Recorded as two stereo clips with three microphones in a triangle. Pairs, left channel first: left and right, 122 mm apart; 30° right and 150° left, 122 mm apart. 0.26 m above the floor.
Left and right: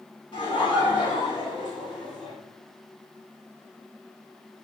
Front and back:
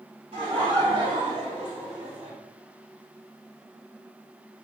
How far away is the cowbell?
No cowbell in this recording.